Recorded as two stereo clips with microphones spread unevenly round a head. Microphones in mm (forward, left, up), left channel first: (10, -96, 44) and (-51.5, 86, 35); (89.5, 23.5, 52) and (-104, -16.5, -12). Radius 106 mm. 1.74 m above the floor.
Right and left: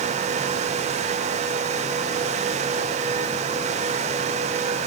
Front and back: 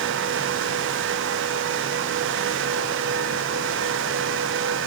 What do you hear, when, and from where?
Only background noise.